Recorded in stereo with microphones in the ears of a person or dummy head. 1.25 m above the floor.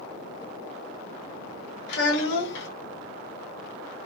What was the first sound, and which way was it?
A child speaking, 55° left (ahead or behind).